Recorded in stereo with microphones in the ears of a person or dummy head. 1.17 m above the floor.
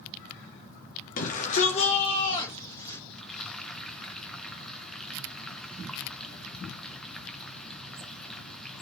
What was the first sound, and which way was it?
A shout, 45° left (ahead or behind).